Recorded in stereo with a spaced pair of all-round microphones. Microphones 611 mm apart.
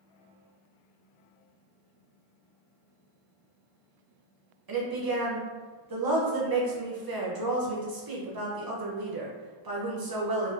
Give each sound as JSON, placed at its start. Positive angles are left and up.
{"t": 4.7, "sound": "a woman speaking", "side_deg": -40, "distance_m": 0.6}